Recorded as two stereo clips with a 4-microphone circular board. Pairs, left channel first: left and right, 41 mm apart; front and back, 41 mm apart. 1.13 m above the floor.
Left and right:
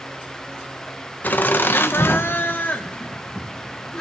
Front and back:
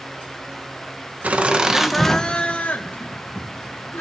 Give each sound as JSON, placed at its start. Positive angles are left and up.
{"t": 1.2, "sound": "laughter", "azimuth_deg": 130, "distance_m": 1.0}